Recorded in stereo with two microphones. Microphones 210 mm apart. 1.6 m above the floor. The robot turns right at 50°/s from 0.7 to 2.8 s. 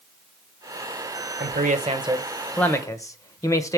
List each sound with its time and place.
1.4 s a man speaking: 55° right, 1.2 m; by 3.8 s 15° left, 1.2 m